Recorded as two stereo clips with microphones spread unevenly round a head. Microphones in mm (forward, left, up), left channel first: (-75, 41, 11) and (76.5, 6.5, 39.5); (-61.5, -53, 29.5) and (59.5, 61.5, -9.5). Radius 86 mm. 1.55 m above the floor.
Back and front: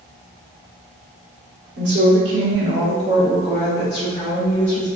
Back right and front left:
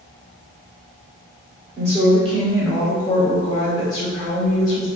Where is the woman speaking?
10° right, 1.6 m; by 4.9 s 140° right, 2 m.